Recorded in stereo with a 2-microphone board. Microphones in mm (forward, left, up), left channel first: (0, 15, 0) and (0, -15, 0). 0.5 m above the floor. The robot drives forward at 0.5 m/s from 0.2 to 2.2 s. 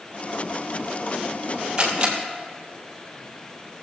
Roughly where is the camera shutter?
Centre.